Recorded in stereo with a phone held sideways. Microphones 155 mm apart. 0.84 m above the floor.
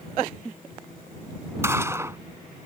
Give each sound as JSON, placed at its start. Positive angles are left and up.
{"t": 1.6, "sound": "a gunshot", "side_deg": -20}